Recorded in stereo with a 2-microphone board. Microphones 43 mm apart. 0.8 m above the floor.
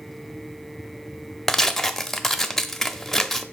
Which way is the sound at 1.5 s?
5° left (ahead or behind).